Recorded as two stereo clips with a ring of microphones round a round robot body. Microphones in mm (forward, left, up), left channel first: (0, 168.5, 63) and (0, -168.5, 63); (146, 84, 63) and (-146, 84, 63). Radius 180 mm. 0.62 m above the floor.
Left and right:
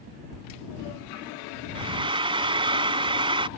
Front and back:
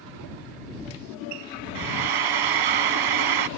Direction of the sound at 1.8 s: 165° right.